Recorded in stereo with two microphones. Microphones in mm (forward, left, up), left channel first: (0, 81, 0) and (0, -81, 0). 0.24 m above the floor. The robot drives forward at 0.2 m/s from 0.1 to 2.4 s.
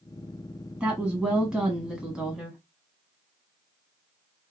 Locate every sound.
0.8 s a woman speaking: 5° right (ahead or behind), 1.3 m